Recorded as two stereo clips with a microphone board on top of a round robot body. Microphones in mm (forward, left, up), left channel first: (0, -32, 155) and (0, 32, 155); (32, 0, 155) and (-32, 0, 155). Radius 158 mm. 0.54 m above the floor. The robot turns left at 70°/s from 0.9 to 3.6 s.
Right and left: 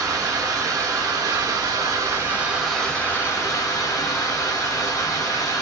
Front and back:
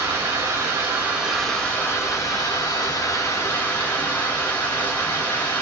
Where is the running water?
125° left, 2.5 m; by 5.6 s 65° right, 2.5 m.